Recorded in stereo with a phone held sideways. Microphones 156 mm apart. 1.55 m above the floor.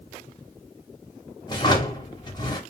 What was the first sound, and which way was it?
A drawer, 25° left (ahead or behind).